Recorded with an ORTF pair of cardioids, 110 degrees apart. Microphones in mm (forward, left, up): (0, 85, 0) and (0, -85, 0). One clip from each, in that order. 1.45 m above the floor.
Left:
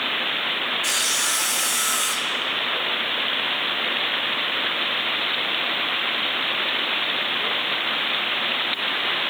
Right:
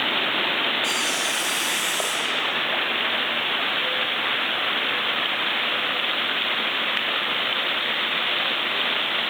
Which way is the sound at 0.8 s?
55° left.